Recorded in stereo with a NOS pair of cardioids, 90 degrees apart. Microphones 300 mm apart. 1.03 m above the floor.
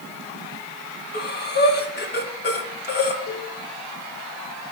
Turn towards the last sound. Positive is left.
turn(degrees=65)